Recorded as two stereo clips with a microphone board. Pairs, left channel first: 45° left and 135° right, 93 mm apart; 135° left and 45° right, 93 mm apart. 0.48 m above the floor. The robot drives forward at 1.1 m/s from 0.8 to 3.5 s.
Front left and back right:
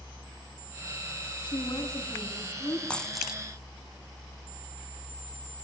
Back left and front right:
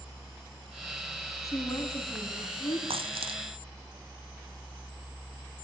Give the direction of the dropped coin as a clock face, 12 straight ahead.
1 o'clock.